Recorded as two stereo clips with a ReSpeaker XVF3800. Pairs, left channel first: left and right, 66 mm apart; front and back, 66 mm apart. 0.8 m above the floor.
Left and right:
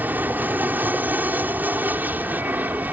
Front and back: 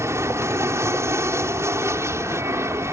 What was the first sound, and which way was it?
An aircraft, 145° right.